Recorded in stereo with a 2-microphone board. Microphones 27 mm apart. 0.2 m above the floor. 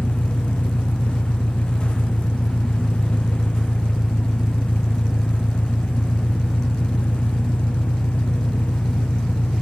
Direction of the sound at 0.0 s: 70° left (ahead or behind).